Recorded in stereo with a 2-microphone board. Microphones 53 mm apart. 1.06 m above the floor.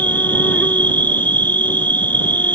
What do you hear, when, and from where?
0.0 s an insect: 35° left (ahead or behind)